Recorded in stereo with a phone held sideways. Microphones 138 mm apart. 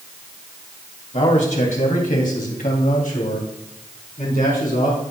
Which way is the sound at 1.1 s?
60° left (ahead or behind).